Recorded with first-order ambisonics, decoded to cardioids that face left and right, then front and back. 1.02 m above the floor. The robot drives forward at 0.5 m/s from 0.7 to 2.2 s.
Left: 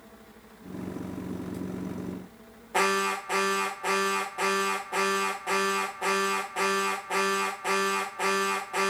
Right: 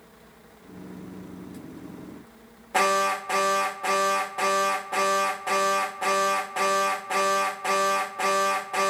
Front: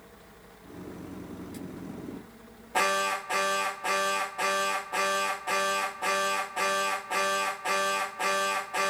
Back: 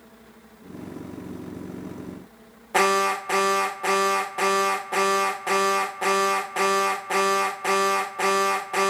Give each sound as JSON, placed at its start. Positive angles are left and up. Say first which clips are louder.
{"t": 2.7, "sound": "an alarm", "louder": "right 3 dB, back 6 dB", "azimuth_deg": -165, "distance_m": 0.9}